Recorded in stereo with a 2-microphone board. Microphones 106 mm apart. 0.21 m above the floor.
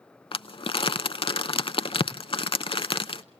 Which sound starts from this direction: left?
Crumpling, at 0.3 s.